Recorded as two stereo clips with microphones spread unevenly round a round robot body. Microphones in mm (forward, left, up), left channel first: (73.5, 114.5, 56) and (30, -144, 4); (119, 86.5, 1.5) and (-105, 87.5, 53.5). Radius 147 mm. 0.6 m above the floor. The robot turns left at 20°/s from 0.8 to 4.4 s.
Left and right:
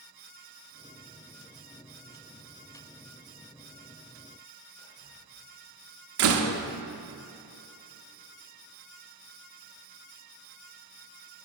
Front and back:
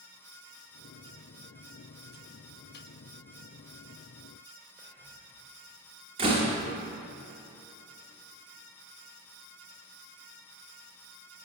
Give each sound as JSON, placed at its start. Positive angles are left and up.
{"t": 4.8, "sound": "whispering", "azimuth_deg": 100, "distance_m": 3.0}
{"t": 6.2, "sound": "a door slam", "azimuth_deg": -105, "distance_m": 0.8}